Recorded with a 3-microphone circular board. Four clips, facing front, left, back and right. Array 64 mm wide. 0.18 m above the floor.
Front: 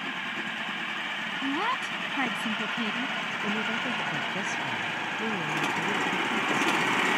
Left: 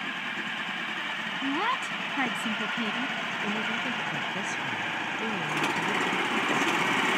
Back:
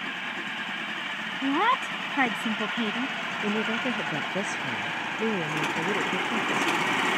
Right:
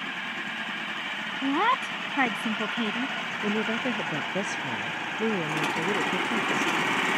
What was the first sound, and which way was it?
A woman speaking, 140° right.